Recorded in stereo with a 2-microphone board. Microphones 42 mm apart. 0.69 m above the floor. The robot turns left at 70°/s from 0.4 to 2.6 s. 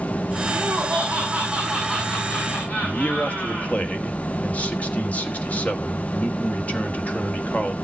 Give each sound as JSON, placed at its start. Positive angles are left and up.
{"t": 0.5, "sound": "laughter", "azimuth_deg": -85, "distance_m": 6.5}
{"t": 2.8, "sound": "a man speaking", "side_deg": 35, "distance_m": 1.5}